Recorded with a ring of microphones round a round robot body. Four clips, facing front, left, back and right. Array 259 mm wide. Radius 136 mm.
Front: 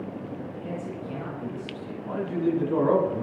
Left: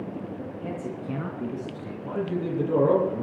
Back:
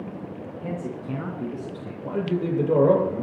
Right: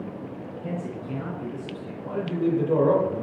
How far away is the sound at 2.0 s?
About 8.5 m.